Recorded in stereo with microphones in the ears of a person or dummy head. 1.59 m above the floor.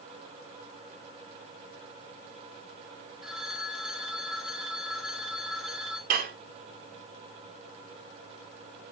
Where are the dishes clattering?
40° right (ahead or behind), 0.9 m.